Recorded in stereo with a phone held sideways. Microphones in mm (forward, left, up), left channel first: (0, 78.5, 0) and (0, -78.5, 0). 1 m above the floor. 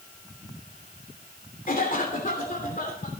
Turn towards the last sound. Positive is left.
turn(degrees=60)  # may be behind; listen again after turning